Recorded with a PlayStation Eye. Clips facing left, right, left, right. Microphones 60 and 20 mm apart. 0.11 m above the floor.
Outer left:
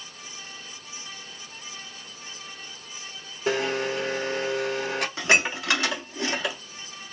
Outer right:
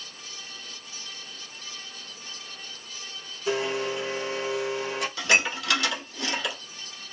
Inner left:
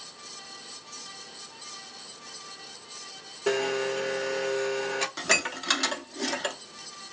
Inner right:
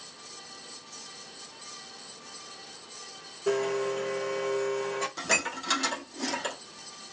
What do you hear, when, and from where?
3.5 s a blender: 55° left (ahead or behind), 0.8 m
5.2 s dishes clattering: 25° left (ahead or behind), 0.9 m